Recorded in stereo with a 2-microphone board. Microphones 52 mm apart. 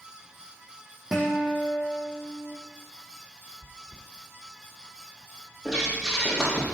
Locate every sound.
1.1 s a guitar: 10° right (ahead or behind), 2 m
3.6 s chewing: 70° left (ahead or behind), 4 m
5.7 s breathing: 10° right (ahead or behind), 4 m